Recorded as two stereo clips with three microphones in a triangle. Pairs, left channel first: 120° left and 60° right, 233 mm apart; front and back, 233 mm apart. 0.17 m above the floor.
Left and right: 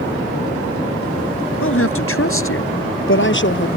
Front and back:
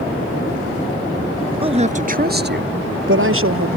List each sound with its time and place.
1.6 s a woman speaking: 115° left; by 3.8 s 160° left